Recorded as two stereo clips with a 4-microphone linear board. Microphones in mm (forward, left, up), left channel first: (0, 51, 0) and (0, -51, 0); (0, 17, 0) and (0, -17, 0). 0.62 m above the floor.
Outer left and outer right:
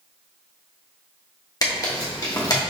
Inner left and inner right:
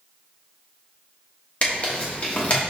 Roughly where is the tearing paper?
Left.